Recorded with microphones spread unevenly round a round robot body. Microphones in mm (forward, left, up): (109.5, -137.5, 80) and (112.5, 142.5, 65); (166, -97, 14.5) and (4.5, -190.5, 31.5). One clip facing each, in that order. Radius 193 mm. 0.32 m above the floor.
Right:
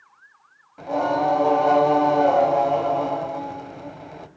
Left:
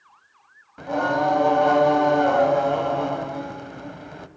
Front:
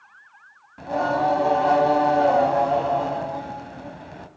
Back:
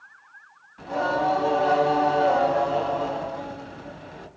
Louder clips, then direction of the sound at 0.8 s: Even, front 2 dB; 25° left.